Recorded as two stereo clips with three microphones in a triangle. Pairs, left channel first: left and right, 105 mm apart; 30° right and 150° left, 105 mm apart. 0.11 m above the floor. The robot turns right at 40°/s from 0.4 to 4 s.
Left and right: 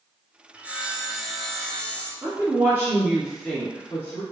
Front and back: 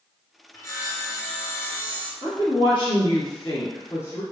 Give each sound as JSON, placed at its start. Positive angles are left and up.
{"t": 0.5, "sound": "sawing", "azimuth_deg": -30, "distance_m": 0.7}
{"t": 2.2, "sound": "a woman speaking", "azimuth_deg": -45, "distance_m": 1.8}